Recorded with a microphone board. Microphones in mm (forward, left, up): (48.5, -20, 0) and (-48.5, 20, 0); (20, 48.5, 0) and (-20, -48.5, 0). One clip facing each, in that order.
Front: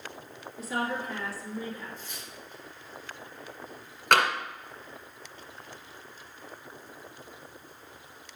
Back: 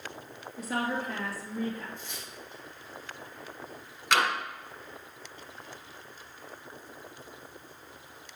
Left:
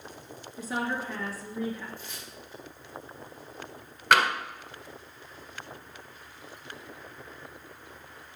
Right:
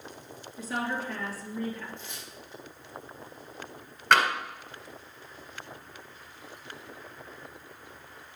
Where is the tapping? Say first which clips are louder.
Front 3 dB, even; 15° right, 1.4 m.